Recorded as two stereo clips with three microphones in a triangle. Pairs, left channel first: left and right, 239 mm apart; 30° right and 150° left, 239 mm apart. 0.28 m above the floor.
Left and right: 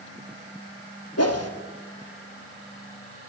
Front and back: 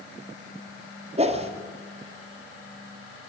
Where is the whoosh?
85° left, 1.6 m.